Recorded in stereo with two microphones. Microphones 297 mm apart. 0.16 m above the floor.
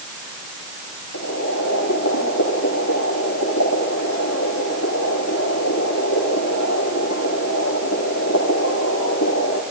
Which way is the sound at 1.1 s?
65° left (ahead or behind).